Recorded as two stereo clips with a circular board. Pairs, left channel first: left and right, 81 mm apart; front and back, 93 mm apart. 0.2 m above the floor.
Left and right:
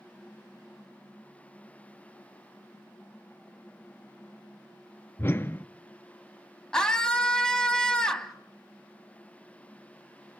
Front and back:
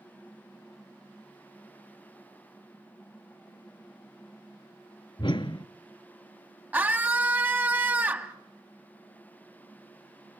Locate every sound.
5.2 s a whoosh: 30° left, 0.6 m
6.7 s a scream: 155° left, 1.0 m